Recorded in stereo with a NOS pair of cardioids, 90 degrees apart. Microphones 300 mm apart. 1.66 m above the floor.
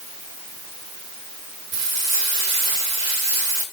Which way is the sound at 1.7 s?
55° right.